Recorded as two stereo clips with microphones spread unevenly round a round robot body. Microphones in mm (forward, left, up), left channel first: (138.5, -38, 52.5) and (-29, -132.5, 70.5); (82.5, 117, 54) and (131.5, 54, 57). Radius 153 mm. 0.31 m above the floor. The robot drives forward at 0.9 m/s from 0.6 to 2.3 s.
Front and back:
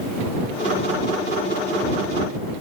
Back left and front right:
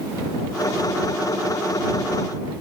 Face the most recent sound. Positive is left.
No sound to turn to.